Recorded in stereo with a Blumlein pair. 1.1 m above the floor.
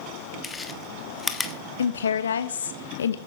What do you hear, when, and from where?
0.4 s chewing: 15° left, 1.2 m
1.8 s a woman speaking: 65° left, 1.1 m